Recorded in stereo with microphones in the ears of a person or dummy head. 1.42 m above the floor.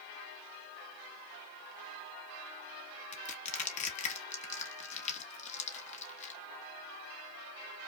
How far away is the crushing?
About 0.9 m.